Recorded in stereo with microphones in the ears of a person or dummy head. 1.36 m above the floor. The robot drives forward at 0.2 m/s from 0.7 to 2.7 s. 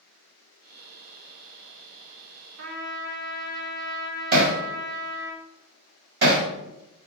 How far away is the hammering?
About 1.1 m.